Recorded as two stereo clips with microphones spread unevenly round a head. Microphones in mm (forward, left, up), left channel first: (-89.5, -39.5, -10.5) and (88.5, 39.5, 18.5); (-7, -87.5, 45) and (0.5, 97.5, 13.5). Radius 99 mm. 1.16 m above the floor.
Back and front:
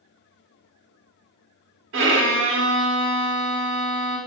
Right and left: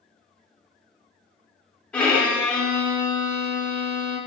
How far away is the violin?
About 0.5 m.